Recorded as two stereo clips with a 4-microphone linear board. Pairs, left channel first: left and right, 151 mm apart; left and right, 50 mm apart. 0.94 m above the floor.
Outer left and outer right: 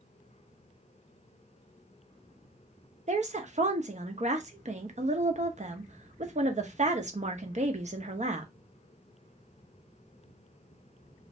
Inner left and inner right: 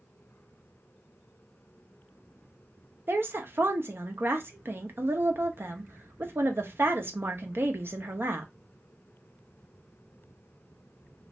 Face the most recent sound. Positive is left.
turn(degrees=-50)  # may be behind; listen again after turning